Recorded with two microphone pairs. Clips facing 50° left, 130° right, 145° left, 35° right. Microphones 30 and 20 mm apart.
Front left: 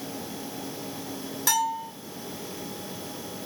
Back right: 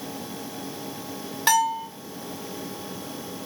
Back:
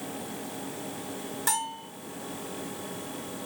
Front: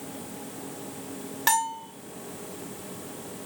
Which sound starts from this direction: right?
A bell, at 1.5 s.